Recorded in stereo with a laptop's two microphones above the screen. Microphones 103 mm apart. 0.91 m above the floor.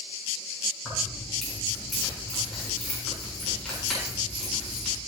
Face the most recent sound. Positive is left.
turn(degrees=10)  # may be behind; listen again after turning